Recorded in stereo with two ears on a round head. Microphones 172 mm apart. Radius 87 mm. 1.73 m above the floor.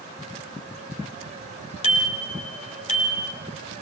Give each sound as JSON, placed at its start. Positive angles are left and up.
{"t": 1.8, "sound": "a bicycle bell", "side_deg": 35, "distance_m": 4.0}